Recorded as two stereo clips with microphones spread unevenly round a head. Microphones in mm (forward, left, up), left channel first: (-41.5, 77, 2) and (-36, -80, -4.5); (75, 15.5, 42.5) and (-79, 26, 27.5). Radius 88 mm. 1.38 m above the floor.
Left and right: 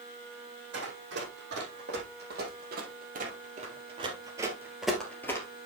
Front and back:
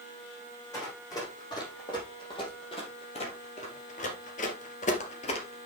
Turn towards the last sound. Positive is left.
turn(degrees=35)